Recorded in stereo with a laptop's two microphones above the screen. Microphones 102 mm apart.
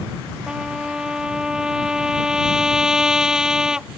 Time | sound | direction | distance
0.5 | a trumpet | 5° right (ahead or behind) | ?